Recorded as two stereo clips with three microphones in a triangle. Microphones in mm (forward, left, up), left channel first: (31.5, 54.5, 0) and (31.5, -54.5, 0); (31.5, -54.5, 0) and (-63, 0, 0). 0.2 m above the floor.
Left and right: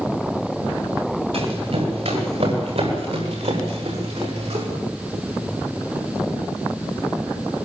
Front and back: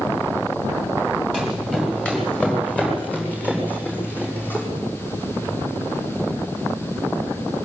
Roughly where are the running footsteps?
Behind right.